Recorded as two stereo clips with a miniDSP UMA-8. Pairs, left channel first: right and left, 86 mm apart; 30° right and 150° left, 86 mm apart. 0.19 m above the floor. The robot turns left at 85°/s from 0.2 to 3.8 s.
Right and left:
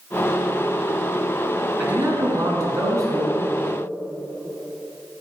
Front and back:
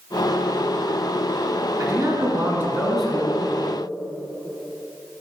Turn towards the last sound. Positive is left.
turn(degrees=-5)